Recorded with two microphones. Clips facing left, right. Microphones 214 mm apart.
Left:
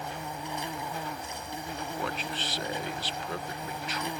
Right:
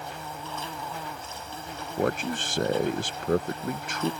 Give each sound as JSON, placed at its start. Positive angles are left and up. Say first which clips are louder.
{"t": 0.0, "sound": "an insect", "louder": "left 1 dB", "side_deg": 15}
{"t": 2.0, "sound": "a man speaking", "louder": "right 12 dB", "side_deg": -50}